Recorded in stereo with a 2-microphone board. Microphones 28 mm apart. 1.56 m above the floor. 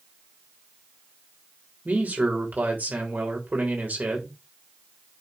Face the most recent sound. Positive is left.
turn(degrees=-80)